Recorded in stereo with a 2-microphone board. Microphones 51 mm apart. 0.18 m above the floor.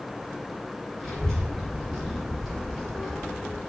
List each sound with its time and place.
1.0 s a child speaking: 10° left (ahead or behind), 1.2 m; by 3.6 s centre (ahead or behind), 1.4 m